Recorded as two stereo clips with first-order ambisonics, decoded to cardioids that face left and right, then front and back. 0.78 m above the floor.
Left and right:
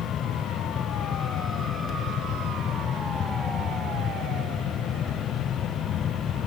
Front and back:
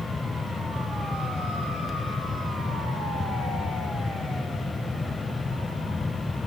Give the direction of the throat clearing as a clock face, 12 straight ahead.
I don't hear throat clearing.